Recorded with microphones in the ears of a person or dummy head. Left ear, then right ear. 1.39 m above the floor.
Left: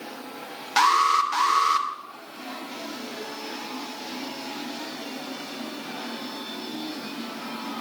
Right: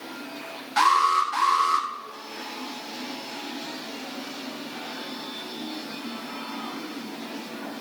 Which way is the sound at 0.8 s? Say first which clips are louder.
Even; 45° left (ahead or behind).